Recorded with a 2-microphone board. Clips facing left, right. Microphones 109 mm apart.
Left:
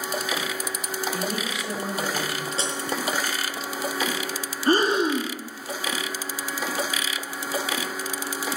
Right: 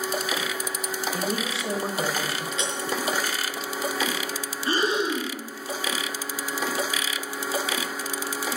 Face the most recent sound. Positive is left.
turn(degrees=45)  # may be behind; listen again after turning